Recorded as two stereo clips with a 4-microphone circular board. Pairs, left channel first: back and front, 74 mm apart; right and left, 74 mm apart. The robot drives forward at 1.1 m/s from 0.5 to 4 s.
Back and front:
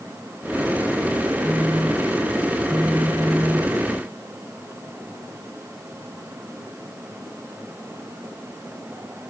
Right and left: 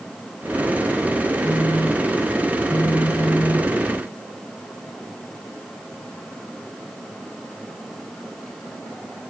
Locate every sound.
1.4 s a phone buzzing: 65° right; by 3.8 s 80° right